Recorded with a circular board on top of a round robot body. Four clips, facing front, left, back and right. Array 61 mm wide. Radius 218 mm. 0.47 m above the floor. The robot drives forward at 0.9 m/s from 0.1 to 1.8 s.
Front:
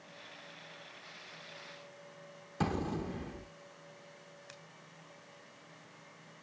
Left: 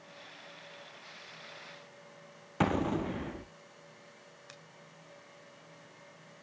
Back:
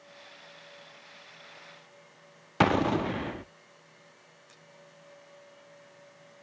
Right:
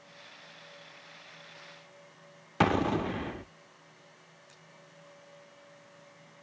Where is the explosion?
160° right, 0.6 m.